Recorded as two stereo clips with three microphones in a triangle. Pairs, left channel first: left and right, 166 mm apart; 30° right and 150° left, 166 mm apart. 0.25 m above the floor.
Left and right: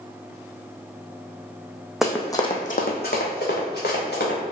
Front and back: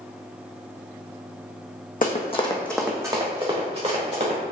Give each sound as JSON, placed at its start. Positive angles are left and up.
{"t": 2.0, "sound": "running footsteps", "azimuth_deg": 0, "distance_m": 0.8}